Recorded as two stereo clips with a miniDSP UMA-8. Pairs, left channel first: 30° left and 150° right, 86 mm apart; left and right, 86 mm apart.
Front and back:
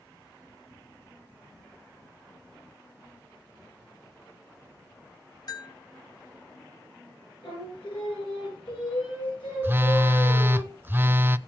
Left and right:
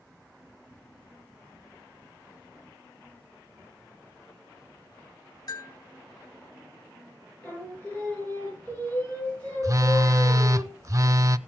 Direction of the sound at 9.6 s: 105° right.